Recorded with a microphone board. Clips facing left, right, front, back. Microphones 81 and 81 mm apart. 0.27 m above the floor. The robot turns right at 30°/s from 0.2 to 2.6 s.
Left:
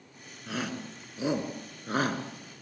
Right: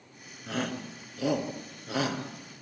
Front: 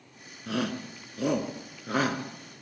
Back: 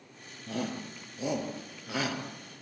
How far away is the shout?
About 3.5 m.